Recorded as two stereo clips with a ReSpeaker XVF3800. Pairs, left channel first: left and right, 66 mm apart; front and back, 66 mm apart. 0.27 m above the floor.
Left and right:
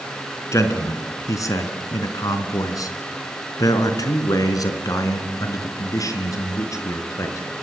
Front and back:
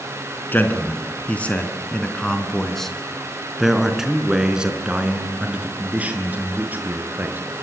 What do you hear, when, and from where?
0.5 s a man speaking: 60° left, 3.5 m; by 7.4 s 120° left, 5 m